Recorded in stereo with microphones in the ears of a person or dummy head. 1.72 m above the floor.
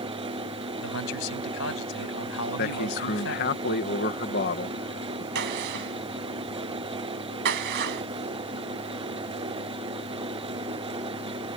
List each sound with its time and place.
0.8 s a man speaking: 85° left
2.6 s a man speaking: 45° left (ahead or behind)
5.3 s a gunshot: 65° right (ahead or behind)